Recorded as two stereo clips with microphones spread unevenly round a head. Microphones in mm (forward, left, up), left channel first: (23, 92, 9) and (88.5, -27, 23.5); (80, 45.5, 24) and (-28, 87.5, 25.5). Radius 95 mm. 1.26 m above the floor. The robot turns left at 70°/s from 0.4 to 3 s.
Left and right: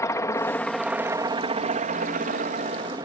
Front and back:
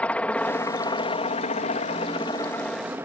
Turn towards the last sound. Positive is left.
turn(degrees=-125)